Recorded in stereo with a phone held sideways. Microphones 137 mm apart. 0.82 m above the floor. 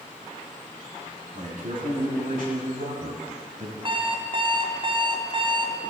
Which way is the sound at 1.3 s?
75° right (ahead or behind).